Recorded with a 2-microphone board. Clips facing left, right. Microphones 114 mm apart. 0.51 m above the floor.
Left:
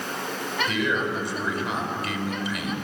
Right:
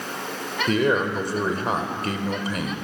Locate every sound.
0.7 s a man speaking: 40° right (ahead or behind), 2.5 m